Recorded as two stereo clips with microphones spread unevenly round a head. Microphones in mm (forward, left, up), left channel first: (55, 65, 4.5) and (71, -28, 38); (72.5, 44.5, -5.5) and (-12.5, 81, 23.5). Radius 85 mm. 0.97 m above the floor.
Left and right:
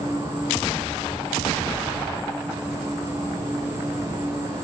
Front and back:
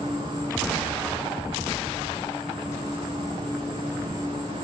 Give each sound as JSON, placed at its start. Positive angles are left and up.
{"t": 0.0, "sound": "an insect", "azimuth_deg": -150, "distance_m": 6.0}